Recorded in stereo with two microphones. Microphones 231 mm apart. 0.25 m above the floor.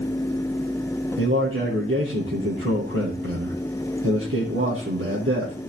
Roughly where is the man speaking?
Right.